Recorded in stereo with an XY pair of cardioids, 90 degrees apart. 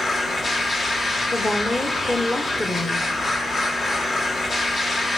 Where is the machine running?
55° left, 2.0 m.